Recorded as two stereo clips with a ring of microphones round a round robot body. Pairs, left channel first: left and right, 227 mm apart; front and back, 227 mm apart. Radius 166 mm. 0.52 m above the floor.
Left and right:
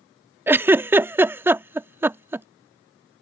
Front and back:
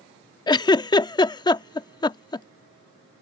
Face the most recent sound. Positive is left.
turn(degrees=-25)